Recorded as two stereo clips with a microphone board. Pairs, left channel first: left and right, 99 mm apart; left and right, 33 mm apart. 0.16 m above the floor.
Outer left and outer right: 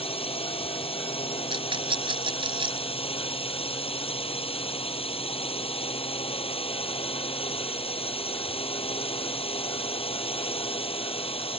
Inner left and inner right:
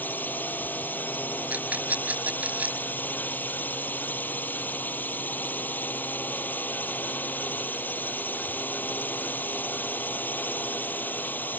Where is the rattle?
60° right (ahead or behind).